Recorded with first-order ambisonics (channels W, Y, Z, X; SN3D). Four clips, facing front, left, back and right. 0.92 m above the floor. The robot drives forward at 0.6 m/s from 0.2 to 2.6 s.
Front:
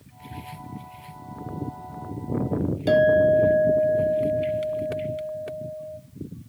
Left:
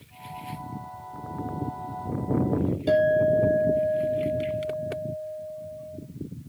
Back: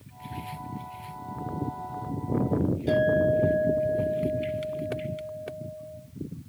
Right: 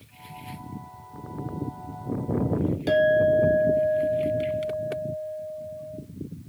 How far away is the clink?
About 1.2 m.